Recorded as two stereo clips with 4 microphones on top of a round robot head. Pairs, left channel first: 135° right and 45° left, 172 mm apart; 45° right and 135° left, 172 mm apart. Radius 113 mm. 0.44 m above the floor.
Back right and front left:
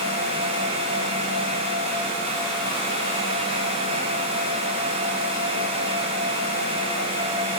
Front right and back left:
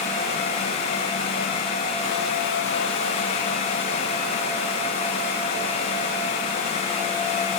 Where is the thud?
No thud in this recording.